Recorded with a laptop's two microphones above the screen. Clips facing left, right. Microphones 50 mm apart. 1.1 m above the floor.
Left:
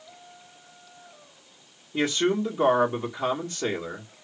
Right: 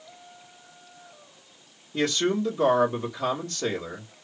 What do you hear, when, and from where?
1.9 s a man speaking: 10° left (ahead or behind), 1.6 m